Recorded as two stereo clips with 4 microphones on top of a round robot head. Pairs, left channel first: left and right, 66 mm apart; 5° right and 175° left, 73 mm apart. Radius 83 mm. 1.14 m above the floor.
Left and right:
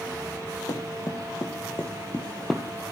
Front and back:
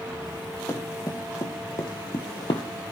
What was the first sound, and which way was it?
Running footsteps, 50° left.